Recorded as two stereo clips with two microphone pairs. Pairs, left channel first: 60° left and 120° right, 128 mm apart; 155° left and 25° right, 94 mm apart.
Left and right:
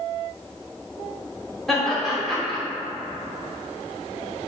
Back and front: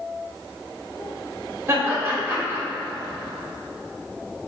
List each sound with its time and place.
1.7 s laughter: 30° right, 1.0 m